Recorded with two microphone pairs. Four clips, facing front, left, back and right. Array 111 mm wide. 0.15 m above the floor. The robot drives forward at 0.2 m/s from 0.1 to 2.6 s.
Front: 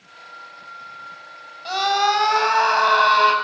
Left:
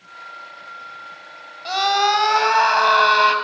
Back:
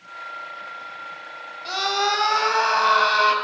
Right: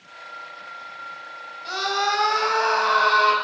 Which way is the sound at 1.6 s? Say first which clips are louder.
Left 6 dB, front 4 dB; 85° left.